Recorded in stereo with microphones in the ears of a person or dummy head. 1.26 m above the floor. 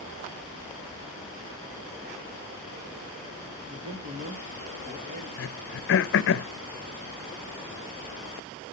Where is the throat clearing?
65° left (ahead or behind), 0.7 m.